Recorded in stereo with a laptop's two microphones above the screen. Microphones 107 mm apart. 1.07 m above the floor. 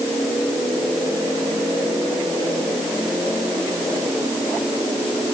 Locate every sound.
Only background noise.